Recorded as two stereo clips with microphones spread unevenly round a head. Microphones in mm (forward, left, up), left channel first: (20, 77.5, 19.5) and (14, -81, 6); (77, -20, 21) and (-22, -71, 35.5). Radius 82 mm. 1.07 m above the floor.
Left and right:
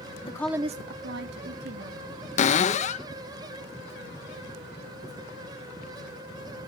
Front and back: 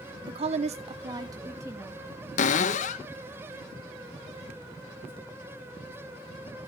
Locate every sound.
0.2 s a woman speaking: 150° left, 0.6 m; by 2.0 s 85° right, 2 m
2.4 s a cupboard door: 40° left, 0.6 m